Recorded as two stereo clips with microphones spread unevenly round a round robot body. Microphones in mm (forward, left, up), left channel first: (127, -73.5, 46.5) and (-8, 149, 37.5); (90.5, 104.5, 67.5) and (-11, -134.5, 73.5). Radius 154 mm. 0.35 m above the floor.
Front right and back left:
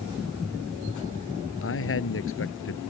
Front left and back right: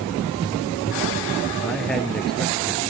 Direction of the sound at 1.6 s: 20° right.